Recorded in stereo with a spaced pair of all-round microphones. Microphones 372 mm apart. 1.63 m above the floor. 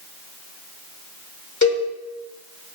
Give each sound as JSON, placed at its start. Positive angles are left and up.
{"t": 1.6, "sound": "a cowbell", "side_deg": 50, "distance_m": 1.8}